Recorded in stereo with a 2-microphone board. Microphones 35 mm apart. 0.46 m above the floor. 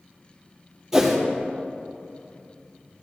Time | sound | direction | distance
0.9 | a whoosh | 10° right (ahead or behind) | 3 m